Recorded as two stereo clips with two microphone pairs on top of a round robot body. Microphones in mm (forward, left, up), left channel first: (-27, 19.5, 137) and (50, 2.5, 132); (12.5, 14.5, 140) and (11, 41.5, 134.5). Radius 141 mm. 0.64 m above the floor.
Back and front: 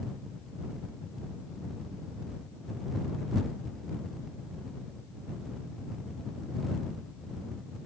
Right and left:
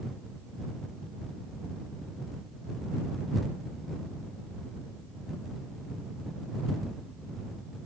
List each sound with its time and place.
Only background noise.